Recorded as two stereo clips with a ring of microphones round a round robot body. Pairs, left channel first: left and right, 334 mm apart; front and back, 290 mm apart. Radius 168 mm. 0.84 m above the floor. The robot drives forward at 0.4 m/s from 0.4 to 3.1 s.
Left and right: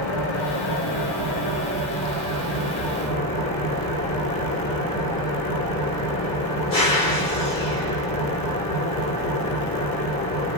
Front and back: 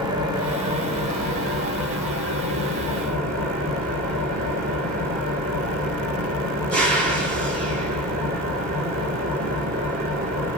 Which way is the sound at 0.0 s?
105° left.